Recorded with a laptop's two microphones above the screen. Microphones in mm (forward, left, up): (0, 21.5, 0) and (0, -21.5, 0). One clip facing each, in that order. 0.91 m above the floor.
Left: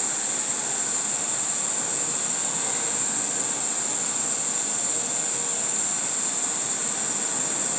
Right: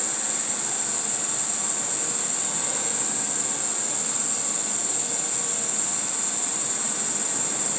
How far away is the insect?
About 0.8 m.